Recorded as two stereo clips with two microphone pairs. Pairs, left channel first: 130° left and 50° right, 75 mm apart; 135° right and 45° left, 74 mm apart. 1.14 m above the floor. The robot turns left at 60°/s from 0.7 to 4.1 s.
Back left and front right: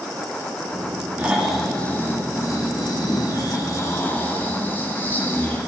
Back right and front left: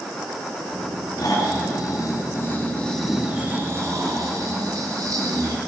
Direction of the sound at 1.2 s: 110° right.